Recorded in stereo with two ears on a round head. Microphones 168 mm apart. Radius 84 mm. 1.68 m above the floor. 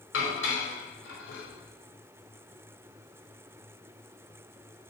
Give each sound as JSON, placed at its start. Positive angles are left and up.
{"t": 0.1, "sound": "dishes clattering", "side_deg": 70, "distance_m": 5.0}